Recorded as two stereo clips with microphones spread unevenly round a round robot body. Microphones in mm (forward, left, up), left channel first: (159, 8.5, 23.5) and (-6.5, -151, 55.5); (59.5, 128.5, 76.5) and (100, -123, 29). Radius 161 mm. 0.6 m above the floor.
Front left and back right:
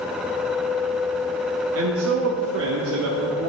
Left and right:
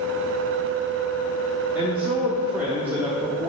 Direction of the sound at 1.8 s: 155° right.